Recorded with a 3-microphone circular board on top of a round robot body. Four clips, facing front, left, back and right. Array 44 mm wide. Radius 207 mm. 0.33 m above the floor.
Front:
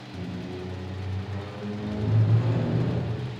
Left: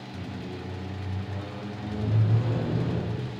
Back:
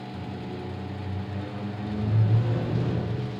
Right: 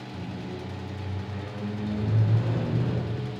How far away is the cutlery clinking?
I don't hear cutlery clinking.